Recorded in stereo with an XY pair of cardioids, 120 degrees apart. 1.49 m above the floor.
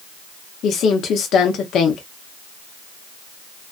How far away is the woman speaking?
About 0.6 m.